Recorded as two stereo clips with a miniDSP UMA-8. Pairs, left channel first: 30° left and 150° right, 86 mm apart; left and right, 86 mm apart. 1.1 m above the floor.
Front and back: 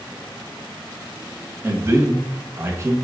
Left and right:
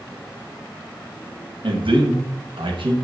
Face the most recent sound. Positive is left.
turn(degrees=-95)